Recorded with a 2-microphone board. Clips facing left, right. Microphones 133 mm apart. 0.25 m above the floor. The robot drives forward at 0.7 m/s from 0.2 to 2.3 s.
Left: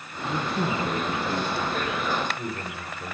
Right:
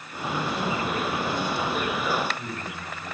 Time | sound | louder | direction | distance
0.2 | a man speaking | left 1 dB | 50° left (ahead or behind) | 3 m